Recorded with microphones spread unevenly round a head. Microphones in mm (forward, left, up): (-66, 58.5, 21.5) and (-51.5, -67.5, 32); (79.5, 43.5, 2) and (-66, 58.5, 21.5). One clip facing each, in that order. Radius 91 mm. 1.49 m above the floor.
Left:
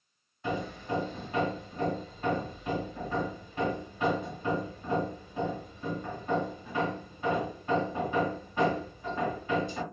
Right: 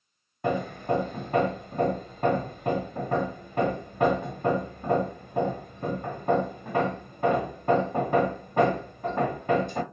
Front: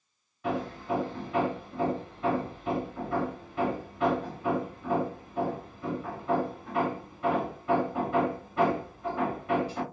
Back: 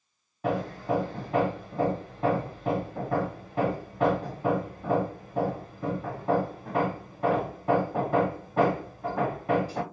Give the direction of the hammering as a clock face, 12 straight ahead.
4 o'clock.